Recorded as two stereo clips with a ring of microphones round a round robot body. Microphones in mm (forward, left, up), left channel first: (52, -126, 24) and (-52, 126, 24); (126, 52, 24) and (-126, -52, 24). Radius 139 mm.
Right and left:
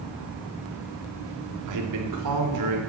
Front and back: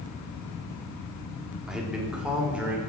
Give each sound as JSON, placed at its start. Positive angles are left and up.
{"t": 1.7, "sound": "a man speaking", "azimuth_deg": 115, "distance_m": 2.0}